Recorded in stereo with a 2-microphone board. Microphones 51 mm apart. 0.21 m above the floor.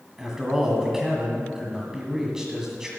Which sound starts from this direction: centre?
A man speaking, at 0.2 s.